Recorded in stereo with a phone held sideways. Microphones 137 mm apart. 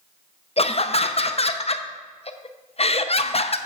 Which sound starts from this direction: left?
Laughter, at 0.6 s.